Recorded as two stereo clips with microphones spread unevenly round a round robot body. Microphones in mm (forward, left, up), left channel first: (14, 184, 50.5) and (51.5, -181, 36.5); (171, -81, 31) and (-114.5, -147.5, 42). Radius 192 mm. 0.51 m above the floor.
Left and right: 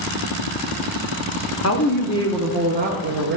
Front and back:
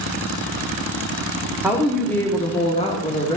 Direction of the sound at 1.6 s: 110° left.